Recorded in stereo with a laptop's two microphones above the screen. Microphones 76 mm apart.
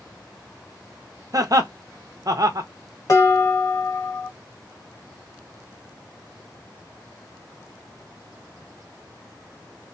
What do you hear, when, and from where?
1.3 s laughter: 50° right (ahead or behind), 0.7 m
3.1 s dishes clattering: 45° left (ahead or behind), 1.3 m